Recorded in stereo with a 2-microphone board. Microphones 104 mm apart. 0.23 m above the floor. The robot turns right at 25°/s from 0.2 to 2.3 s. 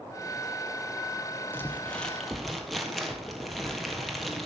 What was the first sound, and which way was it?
Crumpling, 20° left (ahead or behind).